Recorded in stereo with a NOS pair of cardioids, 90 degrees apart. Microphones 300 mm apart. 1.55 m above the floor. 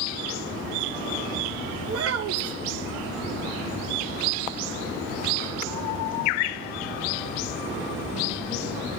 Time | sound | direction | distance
1.9 | a child speaking | 50° right | 1.4 m